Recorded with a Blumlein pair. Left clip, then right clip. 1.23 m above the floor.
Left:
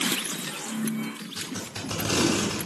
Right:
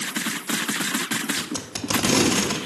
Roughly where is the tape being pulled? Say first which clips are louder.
Right 5 dB; ahead right.